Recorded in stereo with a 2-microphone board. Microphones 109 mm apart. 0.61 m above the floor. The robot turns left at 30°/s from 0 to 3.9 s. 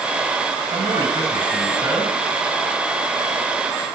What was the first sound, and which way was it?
A man speaking, 135° right.